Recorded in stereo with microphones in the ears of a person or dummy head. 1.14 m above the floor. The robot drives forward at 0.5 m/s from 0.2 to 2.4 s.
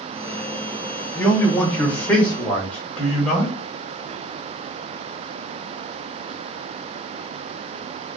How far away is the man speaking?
About 0.6 m.